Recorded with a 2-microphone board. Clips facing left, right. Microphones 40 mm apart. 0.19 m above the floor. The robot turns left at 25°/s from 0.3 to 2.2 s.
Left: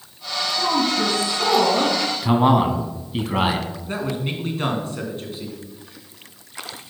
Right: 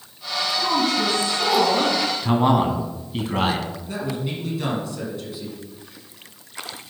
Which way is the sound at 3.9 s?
45° left (ahead or behind).